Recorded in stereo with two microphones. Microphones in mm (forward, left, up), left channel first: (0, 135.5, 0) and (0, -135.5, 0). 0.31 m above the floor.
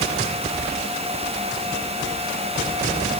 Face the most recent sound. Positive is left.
No sound to turn to.